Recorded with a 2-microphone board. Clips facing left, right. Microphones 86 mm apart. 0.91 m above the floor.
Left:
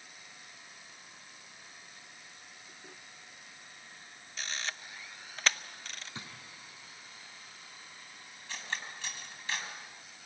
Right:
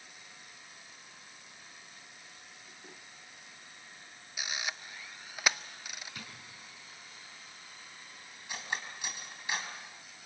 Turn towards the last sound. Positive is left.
turn(degrees=-15)  # may be behind; listen again after turning